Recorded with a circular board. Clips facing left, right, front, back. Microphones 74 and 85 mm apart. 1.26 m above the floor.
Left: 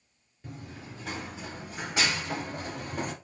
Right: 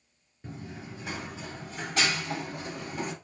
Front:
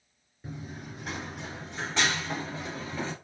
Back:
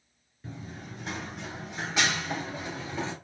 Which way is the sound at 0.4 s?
60° right.